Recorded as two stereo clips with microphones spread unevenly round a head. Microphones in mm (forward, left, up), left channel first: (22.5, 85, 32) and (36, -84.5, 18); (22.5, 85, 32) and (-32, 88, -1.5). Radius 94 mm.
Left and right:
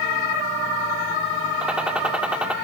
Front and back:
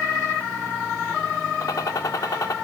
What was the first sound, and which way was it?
A gunshot, straight ahead.